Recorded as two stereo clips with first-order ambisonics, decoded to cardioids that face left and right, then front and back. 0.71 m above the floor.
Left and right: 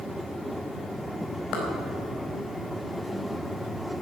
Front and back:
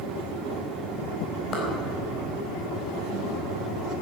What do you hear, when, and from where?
1.5 s a clap: 55° left, 4 m